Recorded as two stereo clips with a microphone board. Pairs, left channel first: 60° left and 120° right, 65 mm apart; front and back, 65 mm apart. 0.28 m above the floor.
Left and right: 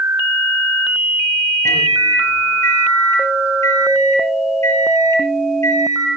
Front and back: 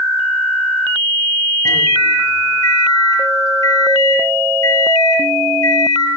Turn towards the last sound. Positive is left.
turn(degrees=25)